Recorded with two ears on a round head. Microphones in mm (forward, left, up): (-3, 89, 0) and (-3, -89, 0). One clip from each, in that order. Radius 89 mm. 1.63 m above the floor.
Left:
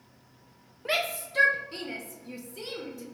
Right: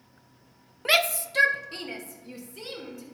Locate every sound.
0.8 s a shout: 45° right (ahead or behind), 0.5 m; by 3.0 s centre (ahead or behind), 1.6 m